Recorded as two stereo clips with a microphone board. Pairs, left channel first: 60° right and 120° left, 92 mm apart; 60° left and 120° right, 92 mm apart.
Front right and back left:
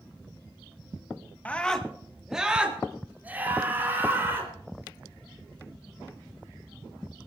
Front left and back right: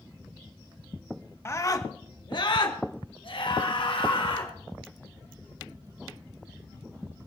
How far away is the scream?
About 1.3 m.